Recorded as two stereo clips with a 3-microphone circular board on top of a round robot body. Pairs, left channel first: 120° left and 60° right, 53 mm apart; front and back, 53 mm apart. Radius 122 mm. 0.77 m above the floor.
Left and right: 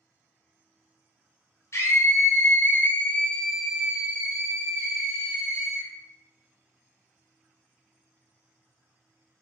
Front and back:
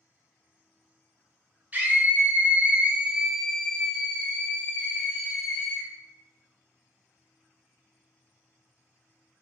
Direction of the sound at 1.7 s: 125° left.